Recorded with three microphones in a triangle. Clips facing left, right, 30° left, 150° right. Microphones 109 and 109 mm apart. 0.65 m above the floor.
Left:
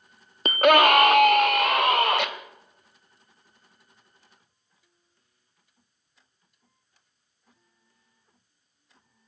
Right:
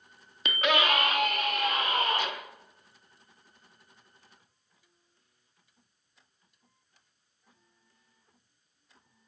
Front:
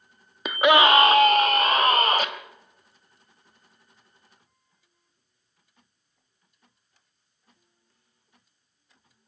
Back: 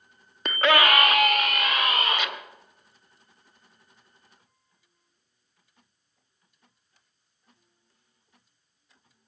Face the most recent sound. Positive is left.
turn(degrees=80)